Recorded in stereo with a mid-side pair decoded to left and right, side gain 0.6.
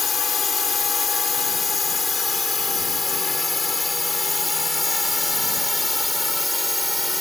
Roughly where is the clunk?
No clunk in this recording.